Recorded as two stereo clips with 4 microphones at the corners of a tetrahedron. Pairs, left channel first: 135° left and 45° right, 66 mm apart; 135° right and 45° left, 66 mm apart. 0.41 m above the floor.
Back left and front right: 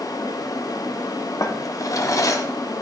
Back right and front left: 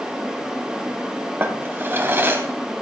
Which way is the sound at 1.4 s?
105° left.